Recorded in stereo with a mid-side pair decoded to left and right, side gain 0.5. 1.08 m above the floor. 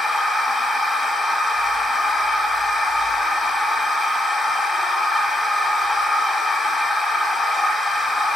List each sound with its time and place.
0.0 s a machine running: 10° left, 0.8 m